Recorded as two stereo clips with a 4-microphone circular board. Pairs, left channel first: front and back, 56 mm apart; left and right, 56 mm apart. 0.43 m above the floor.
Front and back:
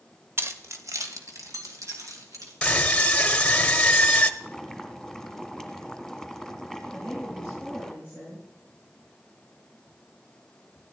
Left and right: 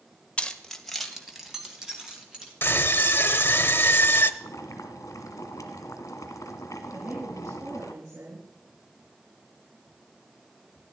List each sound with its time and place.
0.4 s keys jangling: 155° left, 1.0 m; by 2.5 s 165° right, 4 m
2.6 s a scream: 75° left, 1.0 m
4.4 s boiling: 90° left, 1.6 m
6.9 s a woman speaking: 115° right, 6.5 m